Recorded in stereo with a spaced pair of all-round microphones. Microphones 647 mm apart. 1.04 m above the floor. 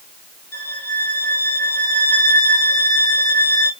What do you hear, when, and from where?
0.5 s a violin: 75° left (ahead or behind), 4 m